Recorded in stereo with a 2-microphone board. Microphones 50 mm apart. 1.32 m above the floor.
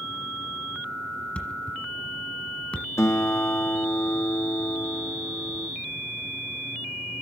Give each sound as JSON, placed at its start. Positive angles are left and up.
{"t": 1.4, "sound": "a thud", "side_deg": 25, "distance_m": 1.6}
{"t": 3.0, "sound": "a guitar", "side_deg": 75, "distance_m": 1.0}